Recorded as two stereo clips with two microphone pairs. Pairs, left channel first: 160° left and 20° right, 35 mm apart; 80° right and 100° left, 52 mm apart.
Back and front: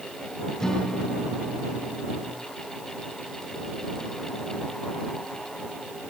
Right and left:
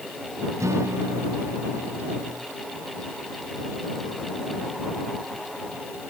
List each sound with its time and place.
0.6 s a guitar: 90° left